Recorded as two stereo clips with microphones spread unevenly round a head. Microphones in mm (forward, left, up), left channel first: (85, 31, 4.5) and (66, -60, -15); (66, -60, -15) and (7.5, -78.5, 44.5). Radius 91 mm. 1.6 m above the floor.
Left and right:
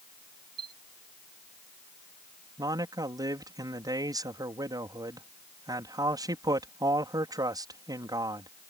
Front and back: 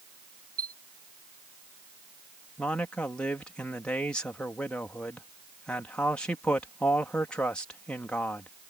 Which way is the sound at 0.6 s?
170° right.